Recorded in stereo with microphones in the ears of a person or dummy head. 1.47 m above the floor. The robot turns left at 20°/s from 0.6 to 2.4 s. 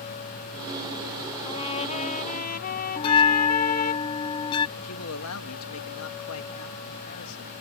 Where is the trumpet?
30° left (ahead or behind); by 4.0 s 50° left (ahead or behind).